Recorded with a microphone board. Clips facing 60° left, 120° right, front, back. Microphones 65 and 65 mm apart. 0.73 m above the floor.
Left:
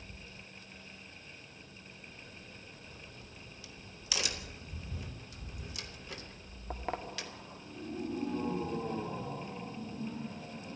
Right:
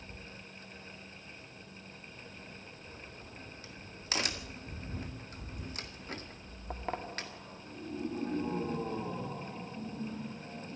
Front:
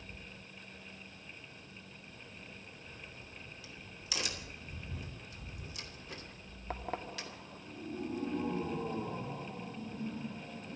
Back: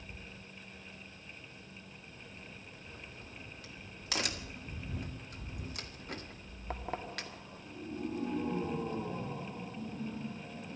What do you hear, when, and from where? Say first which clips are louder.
2.9 s a crack: right 3 dB, back 3 dB; 160° right, 2.0 m